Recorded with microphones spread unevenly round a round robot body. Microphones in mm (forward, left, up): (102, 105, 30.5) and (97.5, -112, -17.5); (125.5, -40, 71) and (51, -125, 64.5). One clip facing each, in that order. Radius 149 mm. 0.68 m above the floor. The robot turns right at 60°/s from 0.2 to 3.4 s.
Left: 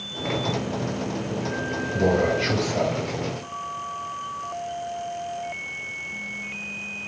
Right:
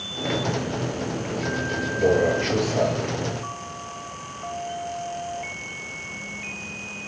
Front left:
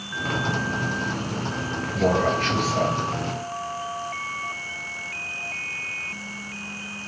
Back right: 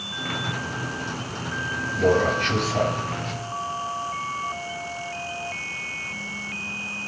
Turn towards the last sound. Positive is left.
turn(degrees=-155)